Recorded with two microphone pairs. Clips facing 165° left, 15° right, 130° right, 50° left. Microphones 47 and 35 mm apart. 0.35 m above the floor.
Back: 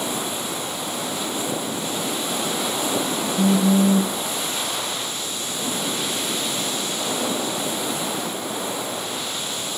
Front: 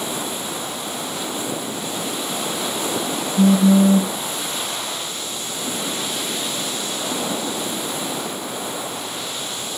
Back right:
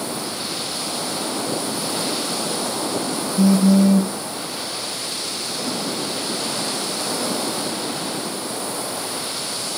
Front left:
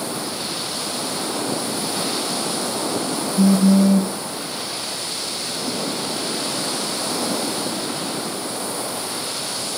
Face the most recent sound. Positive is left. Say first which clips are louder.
# front 4 dB, even
turn(degrees=-30)